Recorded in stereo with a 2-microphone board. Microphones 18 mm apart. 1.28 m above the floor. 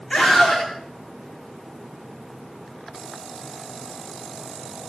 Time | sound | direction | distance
0.1 | a scream | 75° left (ahead or behind) | 4 m